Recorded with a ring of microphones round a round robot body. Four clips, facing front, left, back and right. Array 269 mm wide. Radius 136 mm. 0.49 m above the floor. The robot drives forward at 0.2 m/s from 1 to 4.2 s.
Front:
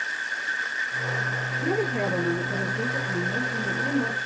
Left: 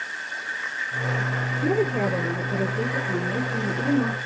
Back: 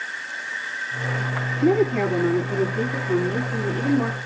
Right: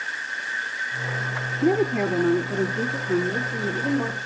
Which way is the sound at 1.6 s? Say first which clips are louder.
Right 2 dB, back 8 dB; 155° right.